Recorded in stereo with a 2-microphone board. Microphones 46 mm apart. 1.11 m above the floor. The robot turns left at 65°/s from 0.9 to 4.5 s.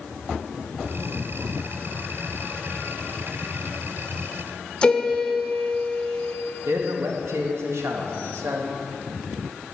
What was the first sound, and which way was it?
A piano, 20° left (ahead or behind).